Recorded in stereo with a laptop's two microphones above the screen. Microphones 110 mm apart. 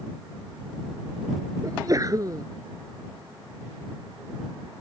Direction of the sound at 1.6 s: 35° right (ahead or behind).